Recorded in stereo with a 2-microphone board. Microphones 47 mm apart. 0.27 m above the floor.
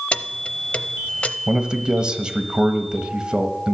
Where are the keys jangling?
25° left (ahead or behind), 0.6 m.